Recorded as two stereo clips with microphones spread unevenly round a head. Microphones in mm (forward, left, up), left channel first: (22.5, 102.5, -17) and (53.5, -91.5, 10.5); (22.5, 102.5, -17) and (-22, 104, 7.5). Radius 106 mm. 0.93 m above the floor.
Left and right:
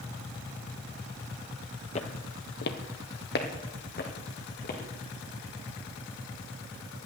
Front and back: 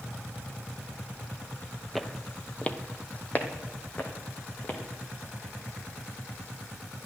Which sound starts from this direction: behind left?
Footsteps, at 1.9 s.